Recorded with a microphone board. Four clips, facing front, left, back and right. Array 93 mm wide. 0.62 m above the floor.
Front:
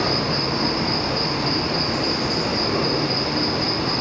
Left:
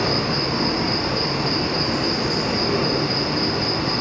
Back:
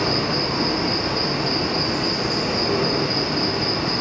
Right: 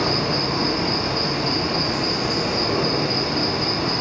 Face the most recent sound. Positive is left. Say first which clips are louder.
# even, even
turn(degrees=140)